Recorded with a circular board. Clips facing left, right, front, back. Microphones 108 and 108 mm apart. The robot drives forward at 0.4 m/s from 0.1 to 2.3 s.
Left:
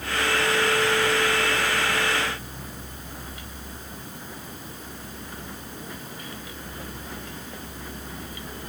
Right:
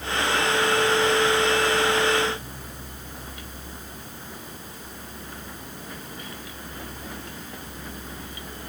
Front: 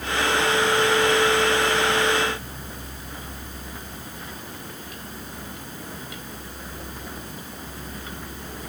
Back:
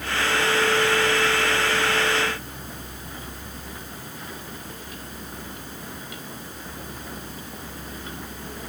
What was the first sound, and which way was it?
Only background noise.